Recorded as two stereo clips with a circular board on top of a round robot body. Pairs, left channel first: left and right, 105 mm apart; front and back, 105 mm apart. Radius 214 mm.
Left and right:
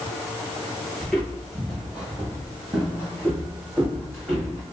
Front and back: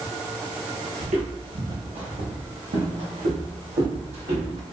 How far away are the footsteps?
About 1.0 m.